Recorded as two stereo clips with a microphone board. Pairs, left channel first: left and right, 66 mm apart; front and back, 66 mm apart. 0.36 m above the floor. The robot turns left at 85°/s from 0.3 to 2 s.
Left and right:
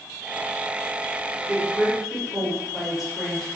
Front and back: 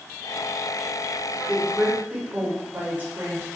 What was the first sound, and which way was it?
A woman speaking, 120° right.